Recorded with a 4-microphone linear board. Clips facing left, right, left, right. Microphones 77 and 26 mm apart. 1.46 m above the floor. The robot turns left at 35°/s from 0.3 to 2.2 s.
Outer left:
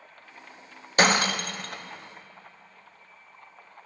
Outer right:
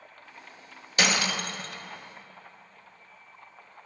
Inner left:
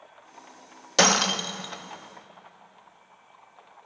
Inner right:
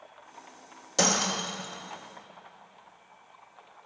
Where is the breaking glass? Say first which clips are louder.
Outer left 5 dB, inner left 5 dB; 40° left (ahead or behind), 1.1 m; by 1.8 s 55° left (ahead or behind), 1.1 m.